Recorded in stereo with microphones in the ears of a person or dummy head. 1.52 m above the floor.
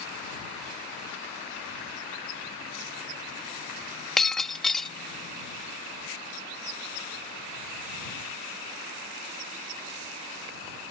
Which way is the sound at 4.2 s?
Centre (ahead or behind).